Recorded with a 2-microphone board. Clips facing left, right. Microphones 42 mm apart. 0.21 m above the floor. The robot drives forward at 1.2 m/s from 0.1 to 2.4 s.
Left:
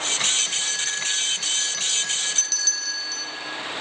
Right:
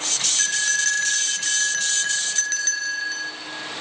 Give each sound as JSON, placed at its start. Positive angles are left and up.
{"t": 0.4, "sound": "a bell", "side_deg": -55, "distance_m": 1.8}